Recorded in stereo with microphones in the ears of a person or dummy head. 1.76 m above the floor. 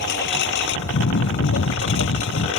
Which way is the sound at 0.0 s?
60° left (ahead or behind).